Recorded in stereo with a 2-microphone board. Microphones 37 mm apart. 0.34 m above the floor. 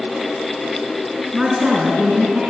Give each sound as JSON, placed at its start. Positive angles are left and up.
{"t": 1.3, "sound": "a woman speaking", "side_deg": -15, "distance_m": 3.5}